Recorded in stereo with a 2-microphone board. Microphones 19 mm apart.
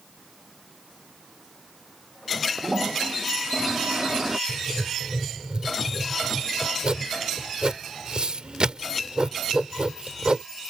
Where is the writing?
55° right (ahead or behind).